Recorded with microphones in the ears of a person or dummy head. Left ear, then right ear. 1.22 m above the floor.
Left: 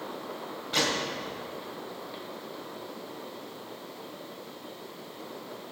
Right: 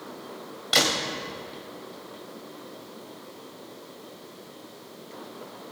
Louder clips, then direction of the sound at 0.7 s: Right 5 dB; 50° right (ahead or behind).